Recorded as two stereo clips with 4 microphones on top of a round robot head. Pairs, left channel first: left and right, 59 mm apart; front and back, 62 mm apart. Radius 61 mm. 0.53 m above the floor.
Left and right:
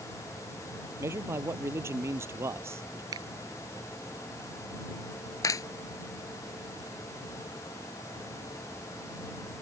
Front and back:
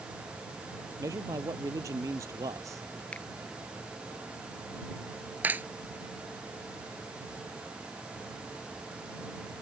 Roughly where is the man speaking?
Behind right.